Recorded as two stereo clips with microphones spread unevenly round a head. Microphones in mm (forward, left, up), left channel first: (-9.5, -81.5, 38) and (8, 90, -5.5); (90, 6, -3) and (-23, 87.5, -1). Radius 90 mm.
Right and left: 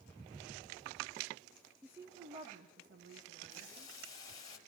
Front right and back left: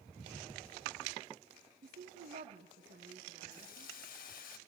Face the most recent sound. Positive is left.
turn(degrees=-20)